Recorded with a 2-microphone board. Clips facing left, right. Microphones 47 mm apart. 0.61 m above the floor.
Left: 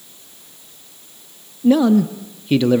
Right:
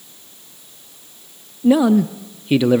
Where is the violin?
No violin in this recording.